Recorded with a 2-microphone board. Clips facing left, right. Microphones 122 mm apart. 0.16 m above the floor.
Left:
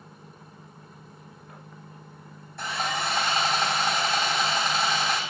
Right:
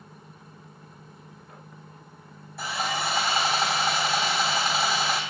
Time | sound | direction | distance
2.6 | sawing | 5° right (ahead or behind) | 3.5 m